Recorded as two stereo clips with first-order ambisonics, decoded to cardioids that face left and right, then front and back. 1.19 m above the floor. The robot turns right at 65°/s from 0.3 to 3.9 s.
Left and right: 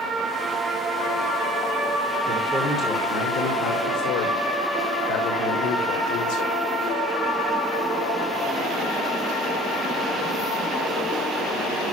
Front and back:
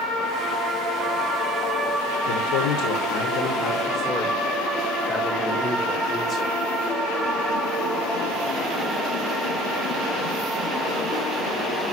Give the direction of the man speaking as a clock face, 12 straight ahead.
1 o'clock.